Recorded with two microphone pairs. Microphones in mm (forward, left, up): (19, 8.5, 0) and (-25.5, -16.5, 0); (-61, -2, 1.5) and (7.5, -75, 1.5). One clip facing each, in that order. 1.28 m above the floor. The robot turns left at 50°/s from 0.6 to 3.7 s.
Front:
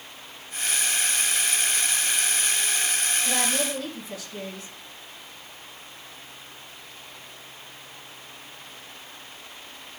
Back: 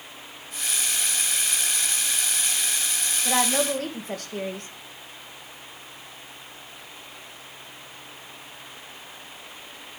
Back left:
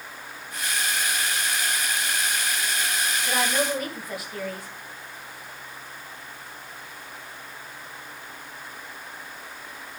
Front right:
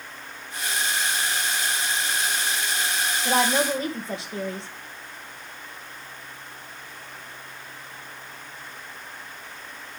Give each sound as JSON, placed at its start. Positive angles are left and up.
{"t": 3.2, "sound": "a woman speaking", "azimuth_deg": -90, "distance_m": 1.4}